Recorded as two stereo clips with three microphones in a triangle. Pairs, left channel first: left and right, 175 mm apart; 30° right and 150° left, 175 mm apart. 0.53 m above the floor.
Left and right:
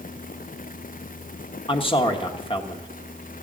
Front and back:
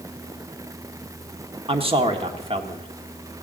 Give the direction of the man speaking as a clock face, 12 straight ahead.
8 o'clock.